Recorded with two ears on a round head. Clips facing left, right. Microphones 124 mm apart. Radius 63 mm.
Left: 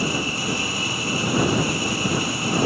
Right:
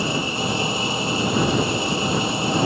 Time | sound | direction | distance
0.0 | an engine running | 20° right (ahead or behind) | ?